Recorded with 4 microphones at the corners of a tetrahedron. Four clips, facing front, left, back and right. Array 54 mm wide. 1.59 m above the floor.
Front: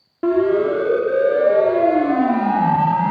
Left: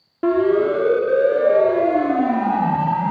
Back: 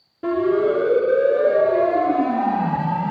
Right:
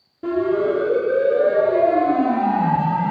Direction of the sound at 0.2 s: 55° left.